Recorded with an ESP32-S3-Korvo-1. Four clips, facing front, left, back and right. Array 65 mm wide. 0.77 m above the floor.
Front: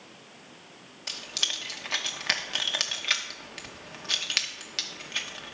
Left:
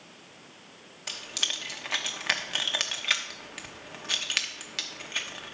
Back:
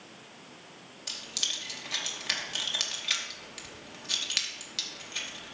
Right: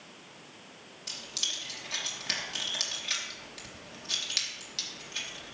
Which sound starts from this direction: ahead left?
Keys jangling, at 1.1 s.